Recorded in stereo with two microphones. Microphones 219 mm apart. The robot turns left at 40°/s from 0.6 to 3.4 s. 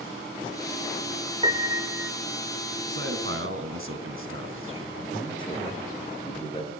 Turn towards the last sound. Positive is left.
turn(degrees=25)  # may be behind; listen again after turning